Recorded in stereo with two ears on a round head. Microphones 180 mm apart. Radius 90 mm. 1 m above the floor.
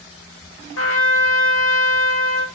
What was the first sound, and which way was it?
A trumpet, 70° left (ahead or behind).